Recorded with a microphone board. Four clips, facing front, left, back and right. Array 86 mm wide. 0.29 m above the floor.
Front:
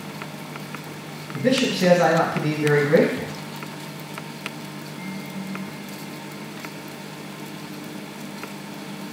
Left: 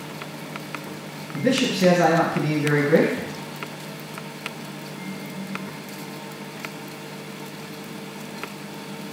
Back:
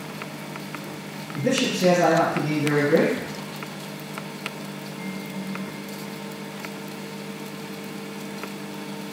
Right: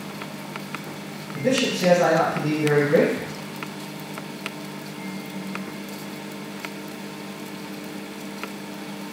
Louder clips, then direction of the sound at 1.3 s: Left 1 dB, front 3 dB; 20° left.